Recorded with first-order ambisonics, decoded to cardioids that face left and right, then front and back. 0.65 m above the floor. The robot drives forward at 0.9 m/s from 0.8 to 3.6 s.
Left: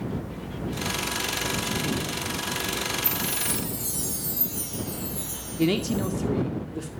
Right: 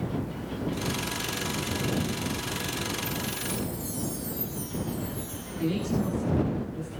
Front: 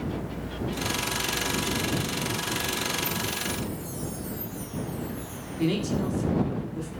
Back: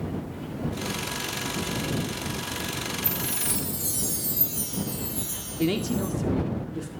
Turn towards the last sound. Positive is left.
turn(degrees=105)